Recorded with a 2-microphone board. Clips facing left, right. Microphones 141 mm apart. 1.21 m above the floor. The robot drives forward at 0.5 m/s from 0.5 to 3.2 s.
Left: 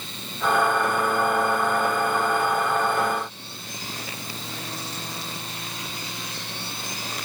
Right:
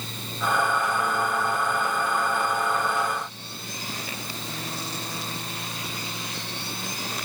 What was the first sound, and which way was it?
Only background noise.